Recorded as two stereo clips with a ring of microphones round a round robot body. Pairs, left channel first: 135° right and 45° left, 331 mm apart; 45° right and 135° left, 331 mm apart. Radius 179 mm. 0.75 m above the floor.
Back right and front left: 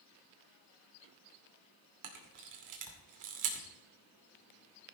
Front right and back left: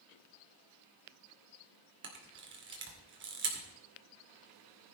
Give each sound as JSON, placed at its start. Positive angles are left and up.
{"t": 2.0, "sound": "a camera shutter", "azimuth_deg": 80, "distance_m": 2.5}